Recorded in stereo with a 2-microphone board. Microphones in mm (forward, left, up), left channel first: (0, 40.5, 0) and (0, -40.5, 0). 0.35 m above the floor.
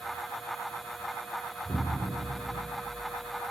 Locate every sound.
1.6 s an explosion: 70° right (ahead or behind), 5.5 m